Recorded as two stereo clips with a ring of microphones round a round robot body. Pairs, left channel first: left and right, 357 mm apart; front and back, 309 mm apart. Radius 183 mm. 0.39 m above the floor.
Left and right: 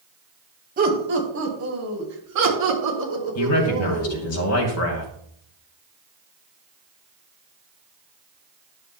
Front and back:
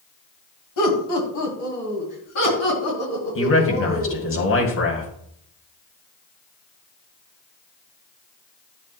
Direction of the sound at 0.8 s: 25° right.